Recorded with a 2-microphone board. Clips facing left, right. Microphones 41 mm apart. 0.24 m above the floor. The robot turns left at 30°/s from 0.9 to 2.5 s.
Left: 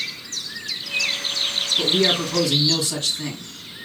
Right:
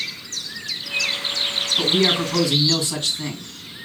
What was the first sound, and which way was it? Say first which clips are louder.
A man speaking: right 1 dB; 15° right (ahead or behind).